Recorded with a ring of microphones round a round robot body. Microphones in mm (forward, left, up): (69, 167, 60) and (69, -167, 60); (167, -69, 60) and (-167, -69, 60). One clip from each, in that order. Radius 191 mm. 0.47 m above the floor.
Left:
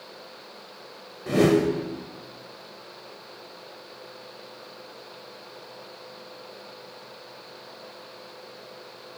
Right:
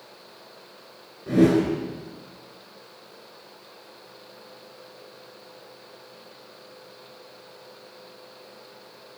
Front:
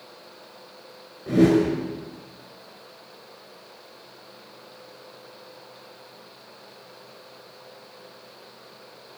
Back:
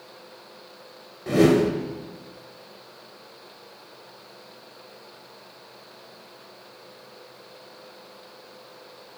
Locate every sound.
1.3 s a whoosh: 130° left, 3 m